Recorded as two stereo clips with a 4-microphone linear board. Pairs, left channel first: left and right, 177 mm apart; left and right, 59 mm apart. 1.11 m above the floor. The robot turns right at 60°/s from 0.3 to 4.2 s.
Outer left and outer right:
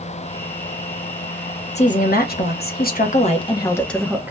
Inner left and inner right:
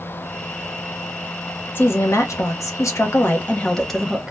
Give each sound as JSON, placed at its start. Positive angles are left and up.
{"t": 1.8, "sound": "a woman speaking", "azimuth_deg": 45, "distance_m": 0.9}